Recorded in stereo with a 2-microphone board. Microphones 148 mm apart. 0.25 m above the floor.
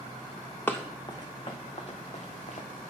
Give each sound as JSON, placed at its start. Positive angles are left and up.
{"t": 0.7, "sound": "running footsteps", "side_deg": 15, "distance_m": 1.2}